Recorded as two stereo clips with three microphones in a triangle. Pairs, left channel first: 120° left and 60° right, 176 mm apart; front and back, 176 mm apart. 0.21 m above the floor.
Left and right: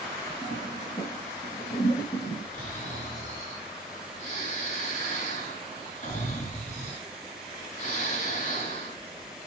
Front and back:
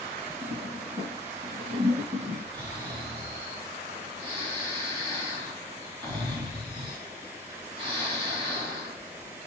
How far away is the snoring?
About 2 m.